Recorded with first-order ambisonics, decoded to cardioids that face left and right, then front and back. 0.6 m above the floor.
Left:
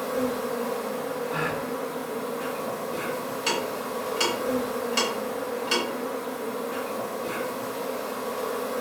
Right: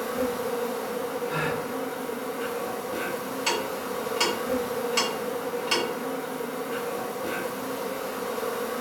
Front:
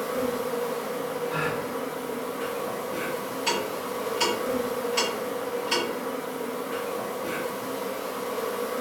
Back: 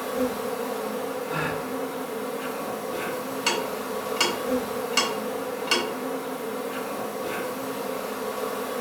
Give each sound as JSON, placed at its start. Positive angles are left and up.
{"t": 0.0, "sound": "an insect", "azimuth_deg": -90, "distance_m": 1.5}
{"t": 1.3, "sound": "a gasp", "azimuth_deg": -110, "distance_m": 0.7}
{"t": 3.5, "sound": "ticking", "azimuth_deg": -175, "distance_m": 1.0}